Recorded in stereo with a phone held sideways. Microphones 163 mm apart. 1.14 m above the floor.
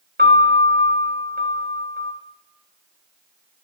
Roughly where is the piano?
Right.